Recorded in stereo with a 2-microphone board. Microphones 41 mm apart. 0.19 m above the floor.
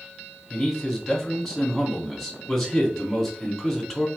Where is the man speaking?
10° left (ahead or behind), 1.1 m.